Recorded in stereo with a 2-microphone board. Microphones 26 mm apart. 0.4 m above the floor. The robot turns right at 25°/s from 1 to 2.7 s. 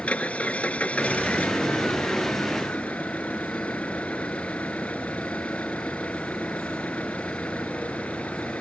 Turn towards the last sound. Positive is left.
turn(degrees=105)